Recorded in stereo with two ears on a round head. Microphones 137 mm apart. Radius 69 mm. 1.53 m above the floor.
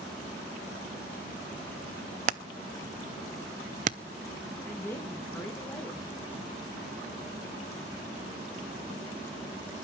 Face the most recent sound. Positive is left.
turn(degrees=15)  # may be behind; listen again after turning